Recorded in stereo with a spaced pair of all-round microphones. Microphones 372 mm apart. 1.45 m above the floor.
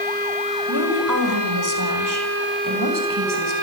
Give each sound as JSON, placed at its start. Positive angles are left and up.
{"t": 0.7, "sound": "a woman speaking", "side_deg": -50, "distance_m": 4.5}